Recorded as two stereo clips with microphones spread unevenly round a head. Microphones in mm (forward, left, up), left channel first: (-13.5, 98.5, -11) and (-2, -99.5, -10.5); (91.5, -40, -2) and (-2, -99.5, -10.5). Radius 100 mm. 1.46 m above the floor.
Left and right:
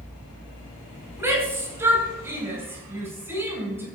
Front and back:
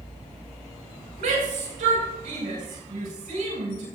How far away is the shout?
About 5 m.